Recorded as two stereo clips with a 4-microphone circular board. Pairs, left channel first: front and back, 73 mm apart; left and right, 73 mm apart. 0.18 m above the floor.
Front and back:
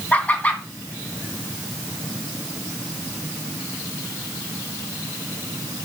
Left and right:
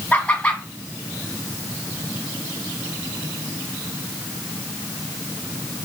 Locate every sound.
0.1 s laughter: 40° left, 1.8 m